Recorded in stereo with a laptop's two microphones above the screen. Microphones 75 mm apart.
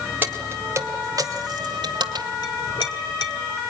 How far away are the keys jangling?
About 2.5 m.